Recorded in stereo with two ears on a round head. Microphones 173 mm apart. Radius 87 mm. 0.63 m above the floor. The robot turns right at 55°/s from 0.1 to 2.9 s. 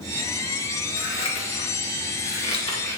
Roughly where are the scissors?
Left.